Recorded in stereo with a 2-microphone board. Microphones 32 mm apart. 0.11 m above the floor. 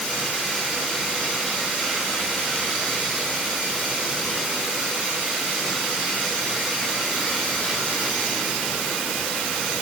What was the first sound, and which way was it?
Only background noise.